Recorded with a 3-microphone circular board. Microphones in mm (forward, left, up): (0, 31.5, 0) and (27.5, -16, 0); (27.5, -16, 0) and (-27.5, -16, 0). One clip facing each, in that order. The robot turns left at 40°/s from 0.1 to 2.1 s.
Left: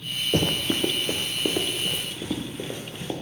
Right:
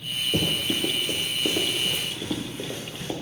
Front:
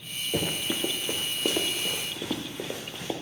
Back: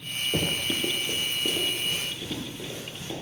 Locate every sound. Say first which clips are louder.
0.3 s running footsteps: left 2 dB, even; 85° left, 1.5 m; by 3.1 s 40° left, 3 m